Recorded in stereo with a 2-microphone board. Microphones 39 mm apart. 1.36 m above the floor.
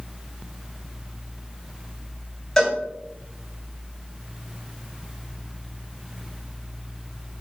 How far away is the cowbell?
About 4.5 m.